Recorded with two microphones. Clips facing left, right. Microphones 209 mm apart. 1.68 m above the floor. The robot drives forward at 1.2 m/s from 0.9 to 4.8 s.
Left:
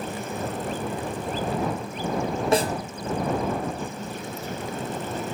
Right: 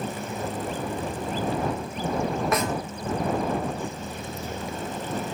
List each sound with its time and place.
2.5 s a snare drum: 30° left (ahead or behind), 0.8 m; by 2.7 s 40° left (ahead or behind), 0.6 m